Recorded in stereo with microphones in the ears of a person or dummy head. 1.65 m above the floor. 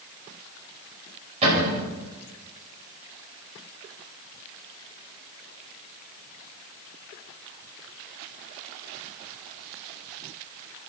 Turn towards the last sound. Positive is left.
turn(degrees=-35)  # may be behind; listen again after turning